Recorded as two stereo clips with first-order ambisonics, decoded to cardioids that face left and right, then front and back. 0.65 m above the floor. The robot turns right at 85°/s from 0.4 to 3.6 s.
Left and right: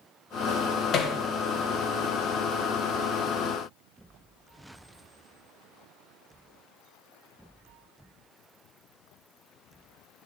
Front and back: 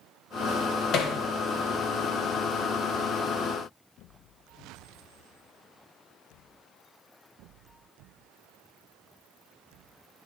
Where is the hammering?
40° left, 0.9 m; by 1.2 s 60° left, 0.9 m.